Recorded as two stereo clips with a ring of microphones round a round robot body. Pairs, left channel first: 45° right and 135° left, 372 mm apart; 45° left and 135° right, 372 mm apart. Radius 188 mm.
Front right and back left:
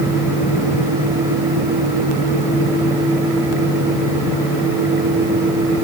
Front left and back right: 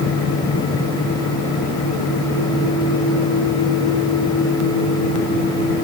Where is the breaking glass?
I don't hear breaking glass.